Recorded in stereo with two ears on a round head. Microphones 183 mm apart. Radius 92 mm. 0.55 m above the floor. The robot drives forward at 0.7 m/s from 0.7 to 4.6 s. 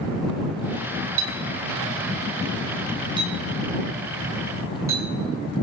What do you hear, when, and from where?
1.2 s a clink: 35° right (ahead or behind), 1.9 m; by 5.0 s 15° right (ahead or behind), 4 m